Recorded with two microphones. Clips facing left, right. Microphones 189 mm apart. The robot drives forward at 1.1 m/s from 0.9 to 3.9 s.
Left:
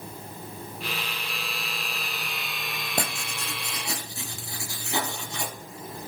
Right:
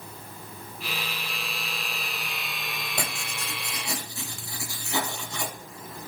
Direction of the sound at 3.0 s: 40° left (ahead or behind).